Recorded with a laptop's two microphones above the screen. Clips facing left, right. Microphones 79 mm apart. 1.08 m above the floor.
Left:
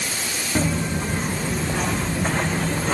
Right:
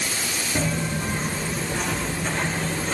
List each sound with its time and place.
0.6 s footsteps: 25° left (ahead or behind), 2.5 m; by 2.9 s 60° left (ahead or behind), 2.5 m